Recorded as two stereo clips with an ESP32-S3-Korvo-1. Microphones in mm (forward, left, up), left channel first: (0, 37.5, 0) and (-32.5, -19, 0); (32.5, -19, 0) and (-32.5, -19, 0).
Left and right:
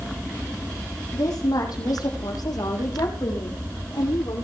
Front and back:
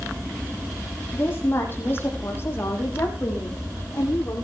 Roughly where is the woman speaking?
Ahead left.